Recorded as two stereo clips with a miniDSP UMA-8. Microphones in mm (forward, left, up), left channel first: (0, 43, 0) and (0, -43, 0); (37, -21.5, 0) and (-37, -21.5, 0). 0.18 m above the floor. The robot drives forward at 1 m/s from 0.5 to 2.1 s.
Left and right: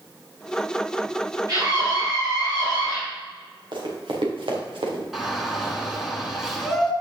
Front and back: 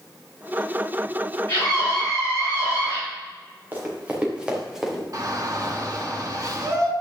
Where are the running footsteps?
115° right, 3.5 m; by 5.0 s 90° right, 3 m.